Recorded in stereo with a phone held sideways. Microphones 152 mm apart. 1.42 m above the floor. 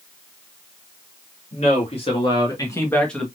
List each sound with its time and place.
1.5 s a man speaking: 45° left (ahead or behind), 2.5 m; by 3.3 s centre (ahead or behind), 1.7 m